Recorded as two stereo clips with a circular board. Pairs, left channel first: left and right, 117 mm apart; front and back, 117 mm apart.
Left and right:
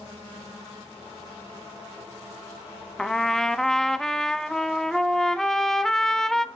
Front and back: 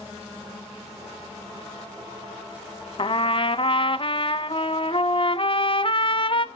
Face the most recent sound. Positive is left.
turn(degrees=5)